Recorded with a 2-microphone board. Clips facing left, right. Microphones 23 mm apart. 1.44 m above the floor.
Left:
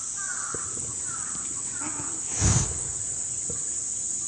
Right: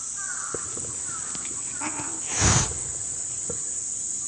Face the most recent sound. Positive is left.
turn(degrees=-35)  # may be behind; listen again after turning